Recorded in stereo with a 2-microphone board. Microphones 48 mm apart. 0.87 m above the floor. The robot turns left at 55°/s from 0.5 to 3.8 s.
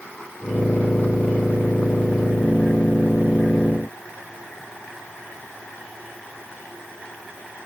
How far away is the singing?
I don't hear singing.